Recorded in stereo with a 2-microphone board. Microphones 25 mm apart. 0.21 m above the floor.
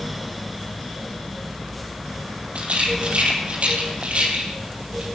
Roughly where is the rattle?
Right.